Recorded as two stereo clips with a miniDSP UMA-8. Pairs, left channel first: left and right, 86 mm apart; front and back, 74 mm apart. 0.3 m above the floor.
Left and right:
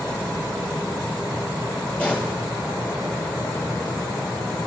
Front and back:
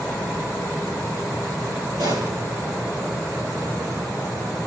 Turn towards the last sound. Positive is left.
turn(degrees=160)